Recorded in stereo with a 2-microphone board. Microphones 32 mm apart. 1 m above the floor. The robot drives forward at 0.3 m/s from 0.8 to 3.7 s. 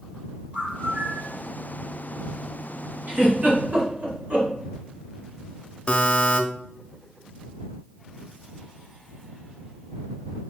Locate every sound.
0.5 s a bird: 40° right (ahead or behind), 2.5 m; by 1.3 s 35° right (ahead or behind), 2.5 m
3.1 s a giggle: 65° right (ahead or behind), 2.5 m; by 4.5 s 60° right (ahead or behind), 2.5 m
5.9 s a buzzer: 30° left (ahead or behind), 0.8 m